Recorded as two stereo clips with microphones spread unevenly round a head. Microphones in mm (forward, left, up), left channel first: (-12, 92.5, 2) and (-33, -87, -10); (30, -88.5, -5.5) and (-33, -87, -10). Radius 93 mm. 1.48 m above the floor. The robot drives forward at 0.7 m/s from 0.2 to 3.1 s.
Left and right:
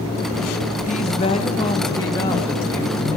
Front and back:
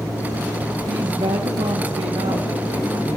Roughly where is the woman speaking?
Behind left.